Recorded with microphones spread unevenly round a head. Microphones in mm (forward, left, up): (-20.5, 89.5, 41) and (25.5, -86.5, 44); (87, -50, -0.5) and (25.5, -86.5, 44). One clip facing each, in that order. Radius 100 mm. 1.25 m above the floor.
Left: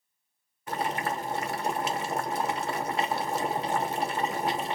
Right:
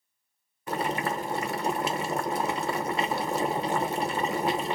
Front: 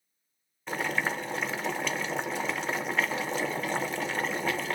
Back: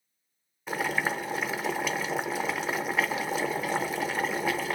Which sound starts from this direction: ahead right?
Boiling, at 0.7 s.